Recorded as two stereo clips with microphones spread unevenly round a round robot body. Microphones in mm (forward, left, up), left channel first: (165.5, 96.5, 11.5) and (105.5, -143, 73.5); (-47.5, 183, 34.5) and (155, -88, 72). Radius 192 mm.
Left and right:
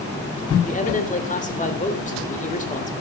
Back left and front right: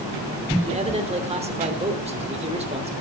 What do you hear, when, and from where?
0.7 s a man speaking: 20° left, 3 m